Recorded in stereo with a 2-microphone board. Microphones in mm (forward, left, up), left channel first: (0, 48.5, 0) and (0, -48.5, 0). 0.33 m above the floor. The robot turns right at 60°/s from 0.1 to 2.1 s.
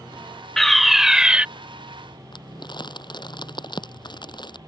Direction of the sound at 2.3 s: 50° left (ahead or behind).